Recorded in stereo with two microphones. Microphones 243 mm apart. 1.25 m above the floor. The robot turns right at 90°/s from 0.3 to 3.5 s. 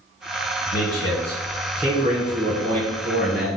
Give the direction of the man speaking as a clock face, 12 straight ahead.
9 o'clock.